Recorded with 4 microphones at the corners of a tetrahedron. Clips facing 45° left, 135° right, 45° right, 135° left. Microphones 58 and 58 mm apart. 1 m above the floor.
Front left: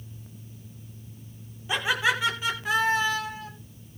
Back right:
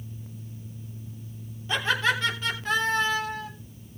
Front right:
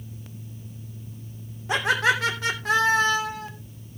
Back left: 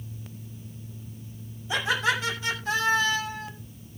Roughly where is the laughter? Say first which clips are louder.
Even, front right 4 dB; ahead right.